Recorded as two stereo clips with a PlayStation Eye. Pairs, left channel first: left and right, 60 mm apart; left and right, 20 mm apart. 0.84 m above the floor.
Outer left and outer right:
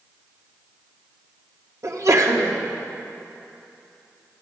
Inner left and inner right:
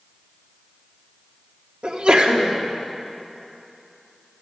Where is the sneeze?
60° right (ahead or behind), 2.0 m.